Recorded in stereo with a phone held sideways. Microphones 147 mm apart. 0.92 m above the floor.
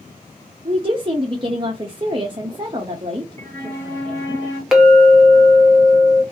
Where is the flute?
15° left (ahead or behind), 0.9 m.